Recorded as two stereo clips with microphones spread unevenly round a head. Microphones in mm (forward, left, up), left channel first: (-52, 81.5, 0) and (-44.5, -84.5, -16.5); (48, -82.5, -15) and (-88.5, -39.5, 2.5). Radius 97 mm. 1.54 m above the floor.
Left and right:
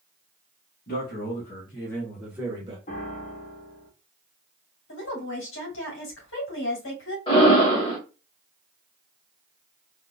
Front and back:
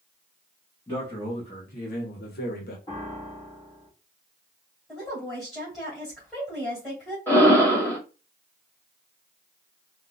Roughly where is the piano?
Ahead left.